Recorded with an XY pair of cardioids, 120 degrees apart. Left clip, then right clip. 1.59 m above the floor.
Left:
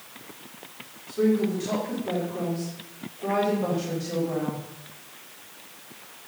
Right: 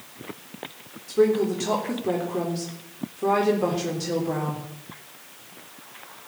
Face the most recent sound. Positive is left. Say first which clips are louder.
# right 4 dB
turn(degrees=-55)